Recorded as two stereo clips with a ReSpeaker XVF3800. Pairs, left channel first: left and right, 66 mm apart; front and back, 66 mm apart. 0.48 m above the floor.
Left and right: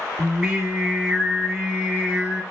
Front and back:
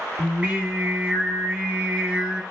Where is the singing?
150° right, 1.0 m.